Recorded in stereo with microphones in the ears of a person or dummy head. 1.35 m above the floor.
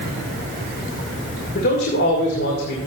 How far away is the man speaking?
About 1.9 m.